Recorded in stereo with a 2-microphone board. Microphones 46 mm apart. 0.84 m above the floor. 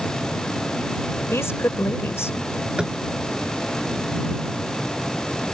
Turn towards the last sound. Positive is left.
turn(degrees=-20)  # may be behind; listen again after turning